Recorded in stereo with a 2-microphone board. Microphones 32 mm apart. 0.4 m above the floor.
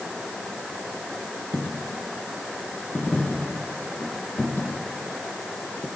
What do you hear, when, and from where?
1.5 s a dropped coin: 55° left (ahead or behind), 6.5 m